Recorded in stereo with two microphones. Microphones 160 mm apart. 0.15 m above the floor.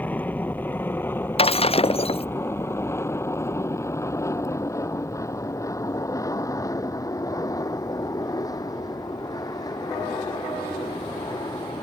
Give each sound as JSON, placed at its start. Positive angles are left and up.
{"t": 0.0, "sound": "an aircraft", "side_deg": 10}
{"t": 1.4, "sound": "breaking glass", "side_deg": 35}